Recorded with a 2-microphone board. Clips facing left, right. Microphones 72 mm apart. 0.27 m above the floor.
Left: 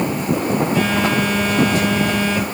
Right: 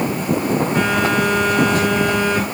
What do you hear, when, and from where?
0.8 s a phone buzzing: 40° right (ahead or behind), 4.5 m